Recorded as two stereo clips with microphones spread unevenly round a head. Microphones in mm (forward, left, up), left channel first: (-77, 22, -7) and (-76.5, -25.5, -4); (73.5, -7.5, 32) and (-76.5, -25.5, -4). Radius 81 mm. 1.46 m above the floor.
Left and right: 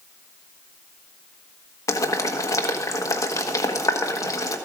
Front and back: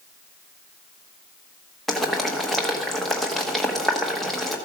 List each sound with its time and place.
1.9 s boiling: 95° left, 1.3 m